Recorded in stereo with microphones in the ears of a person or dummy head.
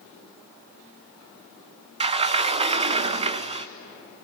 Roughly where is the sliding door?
Right.